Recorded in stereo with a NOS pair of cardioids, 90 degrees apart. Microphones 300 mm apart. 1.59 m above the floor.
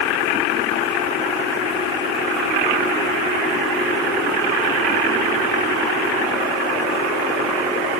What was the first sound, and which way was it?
Only background noise.